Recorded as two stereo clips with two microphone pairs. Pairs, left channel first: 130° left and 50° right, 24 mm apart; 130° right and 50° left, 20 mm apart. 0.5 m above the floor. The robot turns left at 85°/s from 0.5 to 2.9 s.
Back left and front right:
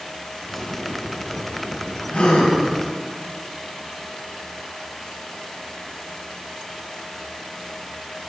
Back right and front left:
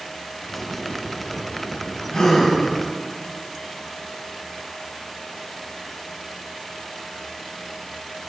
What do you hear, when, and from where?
2.1 s a gasp: 165° left, 2.5 m; by 2.5 s 130° left, 2.5 m